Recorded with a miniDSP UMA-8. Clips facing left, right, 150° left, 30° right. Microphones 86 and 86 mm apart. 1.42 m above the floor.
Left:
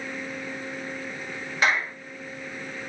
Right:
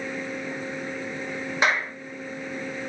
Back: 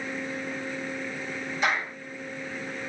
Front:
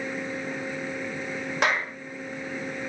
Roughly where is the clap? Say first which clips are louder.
Even, front 2 dB; ahead.